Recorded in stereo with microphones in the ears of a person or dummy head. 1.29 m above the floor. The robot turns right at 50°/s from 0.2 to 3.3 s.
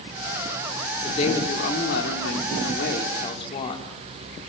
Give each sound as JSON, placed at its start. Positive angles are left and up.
{"t": 1.0, "sound": "a woman speaking", "azimuth_deg": 30, "distance_m": 3.0}